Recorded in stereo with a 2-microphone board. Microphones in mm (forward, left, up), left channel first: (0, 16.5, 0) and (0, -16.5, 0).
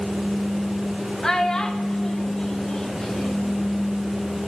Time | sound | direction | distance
1.2 | a child speaking | 20° left (ahead or behind) | 0.7 m